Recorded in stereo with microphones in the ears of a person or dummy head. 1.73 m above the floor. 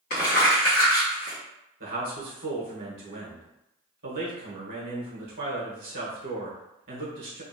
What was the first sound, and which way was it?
Crumpling, 45° left (ahead or behind).